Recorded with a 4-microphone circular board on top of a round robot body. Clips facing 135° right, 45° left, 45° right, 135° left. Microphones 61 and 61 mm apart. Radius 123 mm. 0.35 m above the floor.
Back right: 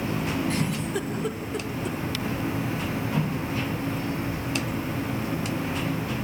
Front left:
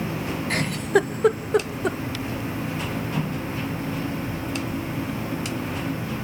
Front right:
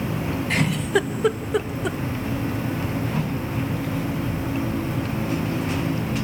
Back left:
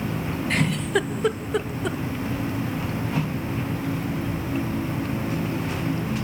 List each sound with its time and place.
0.5 s a giggle: 40° left, 0.8 m